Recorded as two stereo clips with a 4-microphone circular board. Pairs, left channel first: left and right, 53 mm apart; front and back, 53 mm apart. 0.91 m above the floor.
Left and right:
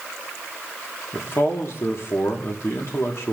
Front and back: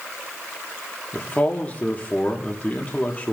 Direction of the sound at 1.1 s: 60° left.